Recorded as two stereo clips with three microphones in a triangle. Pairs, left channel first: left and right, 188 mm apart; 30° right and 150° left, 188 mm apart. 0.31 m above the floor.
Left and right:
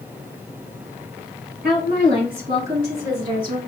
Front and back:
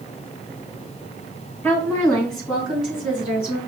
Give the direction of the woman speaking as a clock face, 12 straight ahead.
4 o'clock.